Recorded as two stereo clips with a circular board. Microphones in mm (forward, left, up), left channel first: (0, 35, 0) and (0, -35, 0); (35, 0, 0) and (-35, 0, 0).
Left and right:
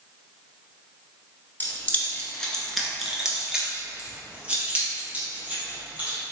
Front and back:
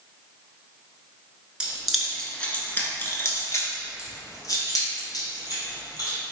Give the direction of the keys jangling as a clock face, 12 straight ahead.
8 o'clock.